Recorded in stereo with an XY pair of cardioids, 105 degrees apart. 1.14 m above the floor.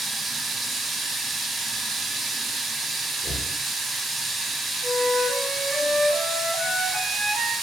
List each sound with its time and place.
0.0 s running water: 35° right, 0.9 m
3.2 s knocking: 40° left, 0.5 m
4.8 s a flute: 40° right, 0.8 m